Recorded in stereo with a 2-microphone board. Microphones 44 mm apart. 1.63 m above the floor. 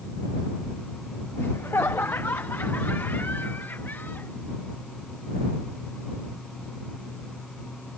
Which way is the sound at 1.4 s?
65° left (ahead or behind).